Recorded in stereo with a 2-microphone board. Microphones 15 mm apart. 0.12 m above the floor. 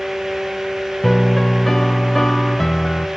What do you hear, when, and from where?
1.0 s a piano: 25° left (ahead or behind), 0.5 m